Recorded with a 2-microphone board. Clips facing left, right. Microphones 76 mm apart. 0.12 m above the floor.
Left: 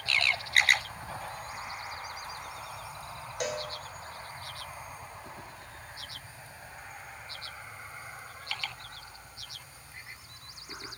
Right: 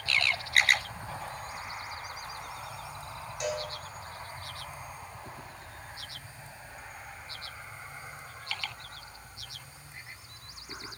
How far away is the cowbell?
About 0.5 m.